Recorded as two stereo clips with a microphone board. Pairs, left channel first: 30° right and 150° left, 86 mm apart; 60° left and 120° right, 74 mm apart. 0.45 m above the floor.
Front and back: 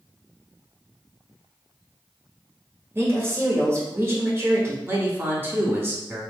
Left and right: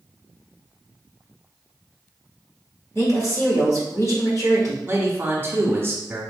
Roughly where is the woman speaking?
Left.